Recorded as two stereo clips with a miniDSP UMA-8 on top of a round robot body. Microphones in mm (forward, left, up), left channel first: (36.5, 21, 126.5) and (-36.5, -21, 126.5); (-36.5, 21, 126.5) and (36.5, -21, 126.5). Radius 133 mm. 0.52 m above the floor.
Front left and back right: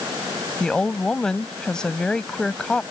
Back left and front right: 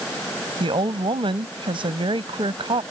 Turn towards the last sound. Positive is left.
turn(degrees=-55)